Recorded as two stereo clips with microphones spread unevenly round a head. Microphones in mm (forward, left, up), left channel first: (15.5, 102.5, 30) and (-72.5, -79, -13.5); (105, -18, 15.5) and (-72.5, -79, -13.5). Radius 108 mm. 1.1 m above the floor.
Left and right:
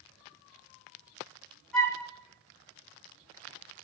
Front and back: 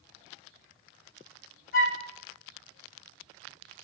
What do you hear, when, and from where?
1.7 s a flute: 20° right, 3.5 m